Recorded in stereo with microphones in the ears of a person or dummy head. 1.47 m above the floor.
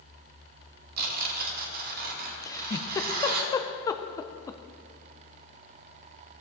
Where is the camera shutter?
I don't hear a camera shutter.